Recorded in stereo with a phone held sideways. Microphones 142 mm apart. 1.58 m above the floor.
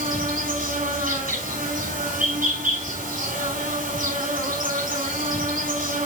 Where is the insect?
75° right (ahead or behind), 6 m.